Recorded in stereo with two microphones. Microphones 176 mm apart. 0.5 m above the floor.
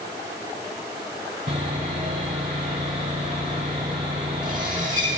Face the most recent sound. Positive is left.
turn(degrees=-50)  # may be behind; listen again after turning